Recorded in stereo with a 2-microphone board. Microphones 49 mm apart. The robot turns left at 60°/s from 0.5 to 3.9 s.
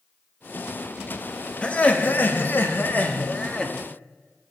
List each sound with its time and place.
1.6 s laughter: 145° left, 0.9 m; by 3.7 s 15° left, 0.9 m